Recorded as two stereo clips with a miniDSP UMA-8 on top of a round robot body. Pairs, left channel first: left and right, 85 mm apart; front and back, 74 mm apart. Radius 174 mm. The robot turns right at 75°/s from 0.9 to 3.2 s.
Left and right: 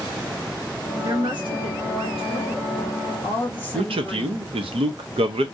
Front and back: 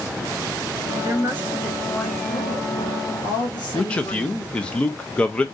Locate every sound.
1.0 s a woman speaking: 145° right, 1.6 m; by 4.5 s 15° left, 1.6 m
3.7 s a man speaking: 75° right, 0.5 m